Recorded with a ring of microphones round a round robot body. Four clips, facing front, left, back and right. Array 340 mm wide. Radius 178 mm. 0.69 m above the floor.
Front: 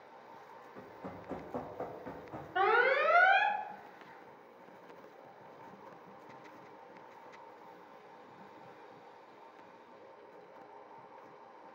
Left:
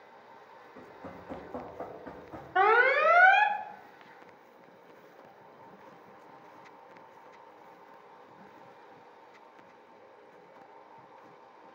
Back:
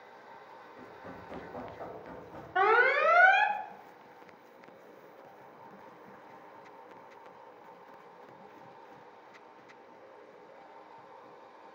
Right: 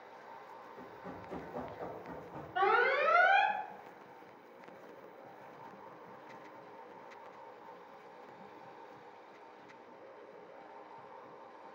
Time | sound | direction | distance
0.8 | running footsteps | 40° left | 3 m
2.5 | an alarm | 110° left | 0.8 m